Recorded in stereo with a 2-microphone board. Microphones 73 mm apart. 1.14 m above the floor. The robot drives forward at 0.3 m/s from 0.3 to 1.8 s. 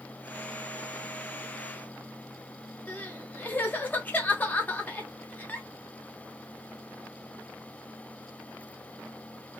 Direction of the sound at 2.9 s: 25° left (ahead or behind).